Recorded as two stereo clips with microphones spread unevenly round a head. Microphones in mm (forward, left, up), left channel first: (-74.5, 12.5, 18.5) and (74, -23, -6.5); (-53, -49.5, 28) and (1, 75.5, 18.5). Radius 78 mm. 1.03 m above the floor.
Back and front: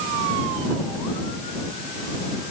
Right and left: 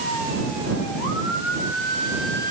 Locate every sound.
Only background noise.